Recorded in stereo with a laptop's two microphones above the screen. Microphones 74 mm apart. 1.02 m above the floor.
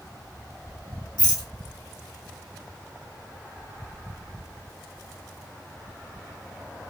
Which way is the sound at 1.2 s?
75° left (ahead or behind).